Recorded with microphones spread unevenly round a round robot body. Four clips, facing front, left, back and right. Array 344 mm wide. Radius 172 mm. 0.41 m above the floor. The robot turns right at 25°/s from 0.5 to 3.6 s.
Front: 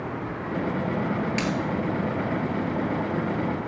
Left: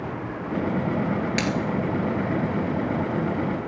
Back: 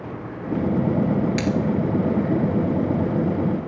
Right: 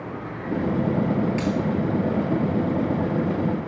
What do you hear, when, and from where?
1.4 s a dropped coin: 95° left, 0.9 m; by 1.6 s 100° left, 0.9 m